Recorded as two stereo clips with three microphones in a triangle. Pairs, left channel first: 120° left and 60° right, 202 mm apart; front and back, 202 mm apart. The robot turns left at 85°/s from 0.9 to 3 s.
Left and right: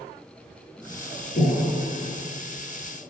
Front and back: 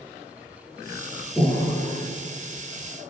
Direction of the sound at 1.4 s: 90° left.